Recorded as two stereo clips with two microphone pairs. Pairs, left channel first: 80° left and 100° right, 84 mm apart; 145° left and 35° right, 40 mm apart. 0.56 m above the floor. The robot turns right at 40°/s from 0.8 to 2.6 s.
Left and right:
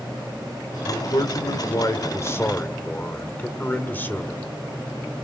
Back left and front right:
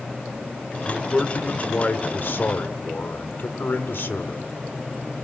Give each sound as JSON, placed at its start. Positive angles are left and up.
{"t": 0.8, "sound": "a man speaking", "azimuth_deg": 70, "distance_m": 1.9}